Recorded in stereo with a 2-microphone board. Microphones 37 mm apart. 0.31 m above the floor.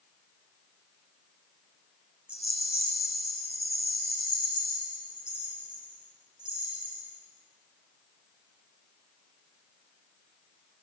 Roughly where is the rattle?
Right.